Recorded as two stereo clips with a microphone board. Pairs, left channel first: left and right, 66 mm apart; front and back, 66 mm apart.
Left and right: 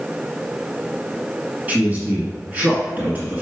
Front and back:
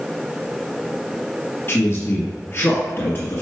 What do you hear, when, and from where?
1.7 s a man speaking: 35° right, 1.6 m